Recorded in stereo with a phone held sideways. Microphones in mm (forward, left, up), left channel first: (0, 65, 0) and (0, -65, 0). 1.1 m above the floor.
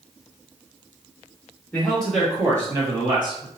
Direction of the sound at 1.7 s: 15° left (ahead or behind).